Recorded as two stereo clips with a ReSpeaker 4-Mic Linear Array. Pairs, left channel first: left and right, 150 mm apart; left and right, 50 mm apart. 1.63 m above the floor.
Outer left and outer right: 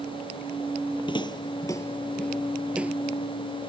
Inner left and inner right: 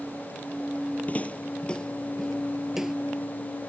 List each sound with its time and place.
1.1 s footsteps: 35° left (ahead or behind); by 3.0 s 10° right (ahead or behind)